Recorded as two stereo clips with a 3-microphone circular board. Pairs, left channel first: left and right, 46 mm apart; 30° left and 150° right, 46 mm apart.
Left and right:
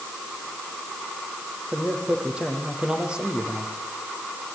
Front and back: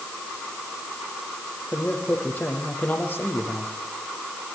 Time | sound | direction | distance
1.7 | a man speaking | 20° right | 7 m